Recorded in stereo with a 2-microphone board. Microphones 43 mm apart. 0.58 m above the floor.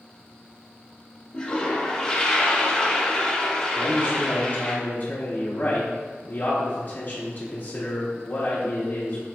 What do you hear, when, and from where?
1.3 s a toilet flushing: 15° left (ahead or behind), 0.7 m
3.8 s a man speaking: 45° left (ahead or behind), 1.1 m